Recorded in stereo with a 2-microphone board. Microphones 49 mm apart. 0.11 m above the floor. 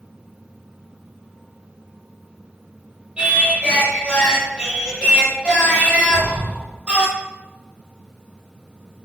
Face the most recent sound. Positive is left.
turn(degrees=35)  # may be behind; listen again after turning